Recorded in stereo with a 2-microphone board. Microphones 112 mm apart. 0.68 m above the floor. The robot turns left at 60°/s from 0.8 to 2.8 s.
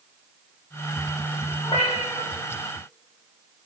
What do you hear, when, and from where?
1.6 s a cat meowing: 130° left, 1.0 m; by 2.3 s 85° left, 1.0 m